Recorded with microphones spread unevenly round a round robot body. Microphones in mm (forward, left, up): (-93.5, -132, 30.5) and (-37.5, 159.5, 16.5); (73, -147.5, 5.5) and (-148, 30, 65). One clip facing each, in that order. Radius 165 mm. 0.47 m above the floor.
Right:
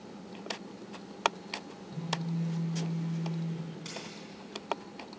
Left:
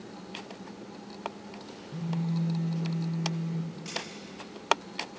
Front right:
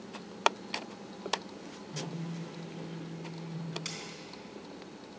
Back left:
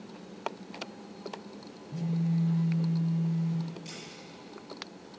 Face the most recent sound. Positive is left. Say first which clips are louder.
# left 3 dB, even
turn(degrees=-25)